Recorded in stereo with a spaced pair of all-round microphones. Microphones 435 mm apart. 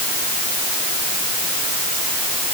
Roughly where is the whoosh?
I don't hear a whoosh.